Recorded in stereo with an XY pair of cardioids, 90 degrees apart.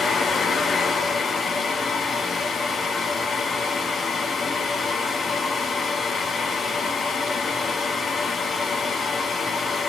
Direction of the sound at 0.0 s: 50° left.